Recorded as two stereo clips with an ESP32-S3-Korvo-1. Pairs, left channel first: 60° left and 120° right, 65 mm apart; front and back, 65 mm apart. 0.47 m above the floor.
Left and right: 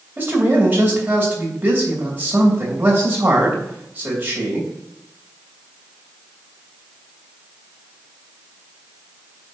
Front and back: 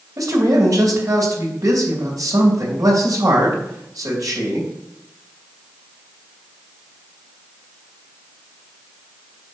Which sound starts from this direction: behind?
A man speaking, at 0.2 s.